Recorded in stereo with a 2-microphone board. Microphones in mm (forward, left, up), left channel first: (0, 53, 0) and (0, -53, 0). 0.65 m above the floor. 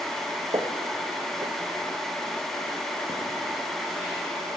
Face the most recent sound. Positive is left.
turn(degrees=-75)  # may be behind; listen again after turning